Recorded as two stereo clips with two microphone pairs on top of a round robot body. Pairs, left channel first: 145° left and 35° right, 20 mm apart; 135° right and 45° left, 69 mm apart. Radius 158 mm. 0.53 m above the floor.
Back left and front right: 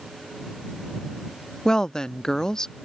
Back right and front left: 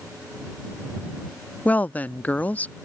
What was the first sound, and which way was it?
A woman speaking, 175° right.